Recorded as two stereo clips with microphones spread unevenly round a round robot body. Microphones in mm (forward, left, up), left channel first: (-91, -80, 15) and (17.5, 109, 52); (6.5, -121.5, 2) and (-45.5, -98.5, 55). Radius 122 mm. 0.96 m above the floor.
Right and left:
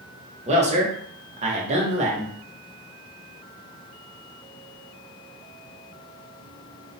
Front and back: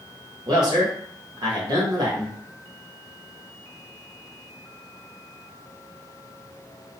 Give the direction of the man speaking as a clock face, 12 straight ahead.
9 o'clock.